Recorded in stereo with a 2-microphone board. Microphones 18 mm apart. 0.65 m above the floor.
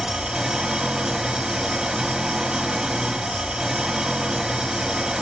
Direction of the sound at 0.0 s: 35° right (ahead or behind).